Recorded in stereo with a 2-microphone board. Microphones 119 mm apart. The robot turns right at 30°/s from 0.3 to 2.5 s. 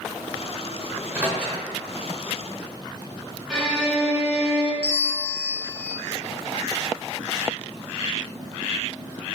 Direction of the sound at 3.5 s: 5° left (ahead or behind).